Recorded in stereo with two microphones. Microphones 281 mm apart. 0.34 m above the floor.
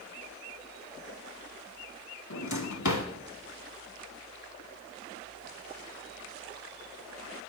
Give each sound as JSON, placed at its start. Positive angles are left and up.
{"t": 2.3, "sound": "a drawer", "side_deg": 75, "distance_m": 0.9}